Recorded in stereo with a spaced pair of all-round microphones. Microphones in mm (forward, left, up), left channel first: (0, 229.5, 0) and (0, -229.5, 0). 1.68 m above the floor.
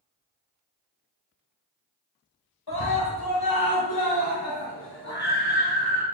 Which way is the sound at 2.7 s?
55° left (ahead or behind).